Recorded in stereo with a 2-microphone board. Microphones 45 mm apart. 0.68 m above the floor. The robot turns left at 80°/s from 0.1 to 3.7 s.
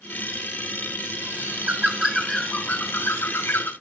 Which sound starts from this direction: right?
A bird, at 1.2 s.